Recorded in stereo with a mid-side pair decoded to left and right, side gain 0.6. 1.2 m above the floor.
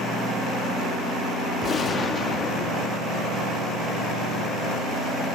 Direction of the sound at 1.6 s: 35° left.